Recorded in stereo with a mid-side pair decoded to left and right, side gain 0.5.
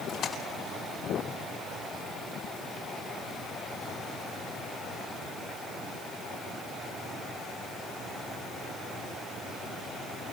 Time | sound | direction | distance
0.1 | a splash | 60° left | 9.5 m